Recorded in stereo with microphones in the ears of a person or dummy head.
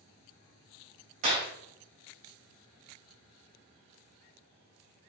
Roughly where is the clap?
Right.